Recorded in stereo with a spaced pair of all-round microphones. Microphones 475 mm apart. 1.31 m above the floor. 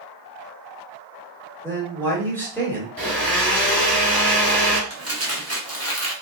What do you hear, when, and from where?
1.6 s a man speaking: 5° left (ahead or behind), 1.7 m
3.0 s a blender: 50° right (ahead or behind), 1.2 m
4.9 s crumpling: 30° right (ahead or behind), 0.9 m